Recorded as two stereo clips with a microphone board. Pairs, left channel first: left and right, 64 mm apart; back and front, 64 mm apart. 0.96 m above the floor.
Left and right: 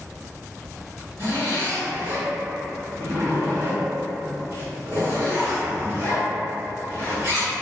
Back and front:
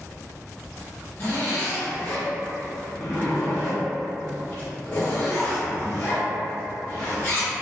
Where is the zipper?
125° right, 1.5 m.